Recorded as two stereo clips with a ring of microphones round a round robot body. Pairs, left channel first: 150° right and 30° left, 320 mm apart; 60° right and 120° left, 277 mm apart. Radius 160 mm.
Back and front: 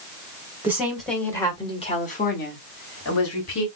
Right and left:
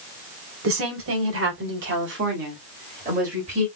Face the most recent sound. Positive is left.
turn(degrees=-175)